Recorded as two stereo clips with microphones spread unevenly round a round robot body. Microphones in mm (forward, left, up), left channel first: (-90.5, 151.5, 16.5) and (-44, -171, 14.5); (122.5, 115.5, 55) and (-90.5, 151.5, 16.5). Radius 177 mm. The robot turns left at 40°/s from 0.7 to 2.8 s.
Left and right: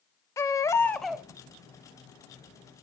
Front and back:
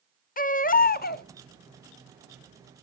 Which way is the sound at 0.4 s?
25° left.